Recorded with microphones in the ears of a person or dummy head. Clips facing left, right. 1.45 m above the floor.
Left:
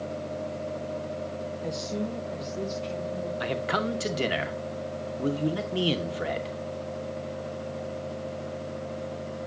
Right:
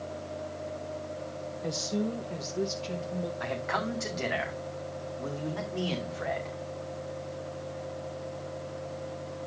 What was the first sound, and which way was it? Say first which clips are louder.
A woman speaking: right 2 dB; centre (ahead or behind).